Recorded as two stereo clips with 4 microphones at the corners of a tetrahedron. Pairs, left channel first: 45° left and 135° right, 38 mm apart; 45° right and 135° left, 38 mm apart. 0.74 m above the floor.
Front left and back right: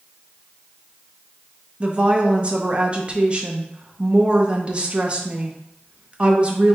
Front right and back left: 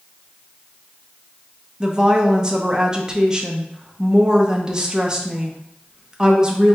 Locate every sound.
1.8 s a woman speaking: 170° right, 0.6 m